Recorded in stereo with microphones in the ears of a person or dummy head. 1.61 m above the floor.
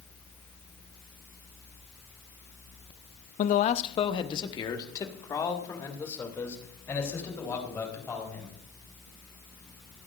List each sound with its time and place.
3.4 s a man speaking: 50° left (ahead or behind), 0.6 m; by 8.6 s 15° left (ahead or behind), 5 m